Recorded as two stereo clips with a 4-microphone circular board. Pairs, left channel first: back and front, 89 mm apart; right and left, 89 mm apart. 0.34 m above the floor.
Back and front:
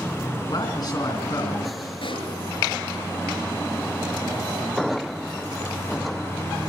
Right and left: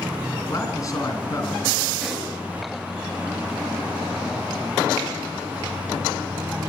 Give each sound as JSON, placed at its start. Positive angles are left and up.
{"t": 0.5, "sound": "a man speaking", "azimuth_deg": -140, "distance_m": 3.5}
{"t": 2.0, "sound": "a pop", "azimuth_deg": 180, "distance_m": 7.0}